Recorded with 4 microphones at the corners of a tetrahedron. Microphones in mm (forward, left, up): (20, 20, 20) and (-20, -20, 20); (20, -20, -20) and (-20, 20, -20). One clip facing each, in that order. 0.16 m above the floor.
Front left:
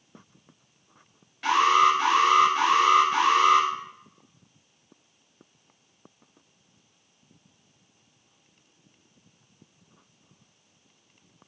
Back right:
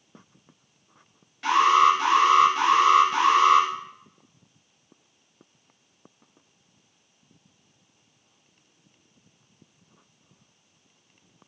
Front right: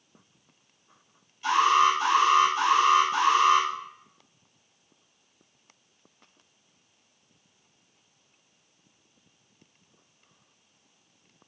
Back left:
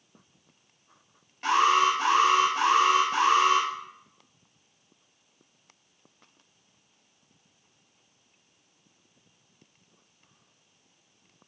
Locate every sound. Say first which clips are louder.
1.4 s an alarm: back right 2 dB, front right 1 dB; 130° left, 4 m